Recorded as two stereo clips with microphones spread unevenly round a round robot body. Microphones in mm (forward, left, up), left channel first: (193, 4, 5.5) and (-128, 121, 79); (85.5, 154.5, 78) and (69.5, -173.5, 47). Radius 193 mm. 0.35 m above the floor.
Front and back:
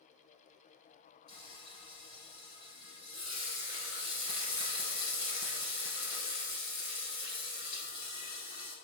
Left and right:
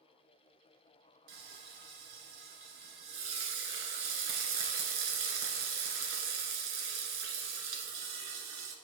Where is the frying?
100° right, 1.4 m.